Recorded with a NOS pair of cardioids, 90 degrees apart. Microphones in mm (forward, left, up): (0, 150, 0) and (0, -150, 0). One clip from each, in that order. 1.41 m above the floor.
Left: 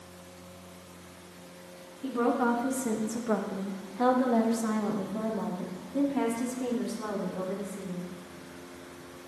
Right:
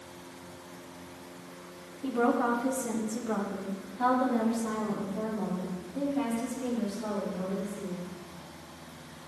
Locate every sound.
2.0 s a woman speaking: 5° right, 1.5 m; by 8.1 s 70° left, 5 m